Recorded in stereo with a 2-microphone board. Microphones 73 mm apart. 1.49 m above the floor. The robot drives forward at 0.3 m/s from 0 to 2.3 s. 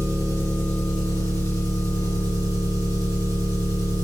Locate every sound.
0.0 s an engine running: 50° right (ahead or behind), 1.5 m; by 4.0 s 60° right (ahead or behind), 1.4 m